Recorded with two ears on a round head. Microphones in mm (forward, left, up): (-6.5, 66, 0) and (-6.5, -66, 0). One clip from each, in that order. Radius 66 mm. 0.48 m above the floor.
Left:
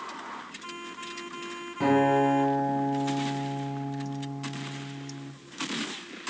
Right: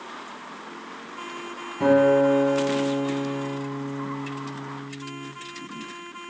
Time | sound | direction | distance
1.8 | a guitar | 20° left (ahead or behind) | 1.1 m